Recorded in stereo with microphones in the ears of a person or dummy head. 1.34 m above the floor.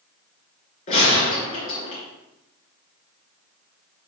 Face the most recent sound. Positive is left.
turn(degrees=40)  # may be behind; listen again after turning